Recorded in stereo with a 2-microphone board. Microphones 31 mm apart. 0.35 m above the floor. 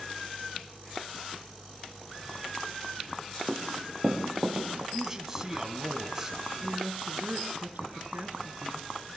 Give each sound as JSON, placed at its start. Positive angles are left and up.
{"t": 3.5, "sound": "running footsteps", "side_deg": -30, "distance_m": 7.0}
{"t": 4.9, "sound": "a man speaking", "side_deg": -15, "distance_m": 3.5}
{"t": 6.6, "sound": "a woman speaking", "side_deg": -65, "distance_m": 6.0}